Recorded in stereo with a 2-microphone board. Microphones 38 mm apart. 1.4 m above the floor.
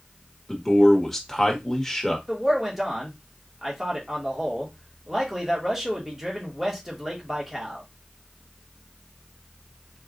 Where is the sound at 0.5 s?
10° left (ahead or behind), 1.4 m.